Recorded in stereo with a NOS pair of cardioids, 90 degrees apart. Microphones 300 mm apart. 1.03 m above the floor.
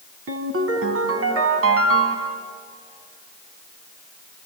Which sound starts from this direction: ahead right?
A ringtone, at 0.3 s.